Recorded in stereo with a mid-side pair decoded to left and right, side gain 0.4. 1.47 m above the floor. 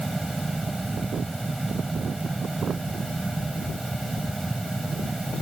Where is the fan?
15° right.